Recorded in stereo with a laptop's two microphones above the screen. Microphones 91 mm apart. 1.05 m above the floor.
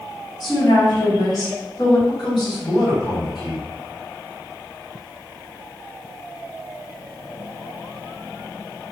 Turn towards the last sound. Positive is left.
turn(degrees=55)  # may be behind; listen again after turning